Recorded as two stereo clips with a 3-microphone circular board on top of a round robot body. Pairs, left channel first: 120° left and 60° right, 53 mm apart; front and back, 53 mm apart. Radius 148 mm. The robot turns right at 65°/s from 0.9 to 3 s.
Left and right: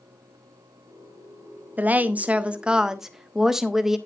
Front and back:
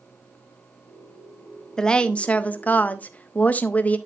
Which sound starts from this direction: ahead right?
A woman speaking, at 1.8 s.